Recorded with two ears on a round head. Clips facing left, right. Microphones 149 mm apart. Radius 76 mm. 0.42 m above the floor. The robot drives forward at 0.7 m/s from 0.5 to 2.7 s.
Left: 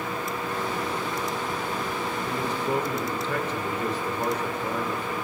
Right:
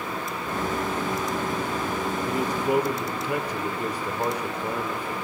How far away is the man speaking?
About 1.4 m.